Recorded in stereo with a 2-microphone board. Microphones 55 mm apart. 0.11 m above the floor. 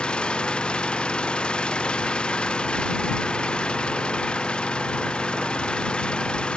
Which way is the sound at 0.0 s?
20° left (ahead or behind).